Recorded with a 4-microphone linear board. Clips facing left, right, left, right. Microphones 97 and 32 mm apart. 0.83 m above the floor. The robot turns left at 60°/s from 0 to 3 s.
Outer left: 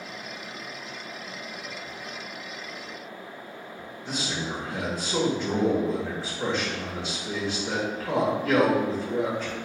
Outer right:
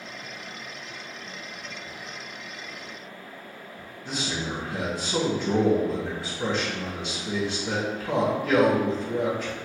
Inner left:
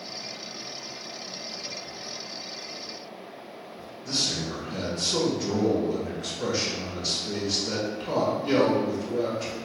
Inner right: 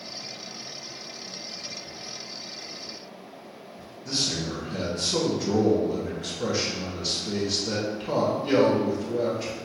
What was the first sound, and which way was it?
A man speaking, 5° right (ahead or behind).